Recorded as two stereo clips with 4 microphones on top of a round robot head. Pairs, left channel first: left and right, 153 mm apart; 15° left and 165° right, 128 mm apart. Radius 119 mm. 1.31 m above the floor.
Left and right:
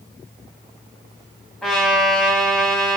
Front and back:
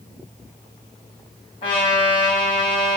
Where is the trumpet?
10° left, 0.9 m.